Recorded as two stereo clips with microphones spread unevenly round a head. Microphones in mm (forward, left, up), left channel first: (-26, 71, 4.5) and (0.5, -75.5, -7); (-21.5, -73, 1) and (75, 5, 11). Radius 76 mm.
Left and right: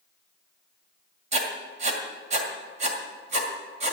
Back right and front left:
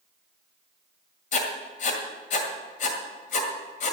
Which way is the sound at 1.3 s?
125° right.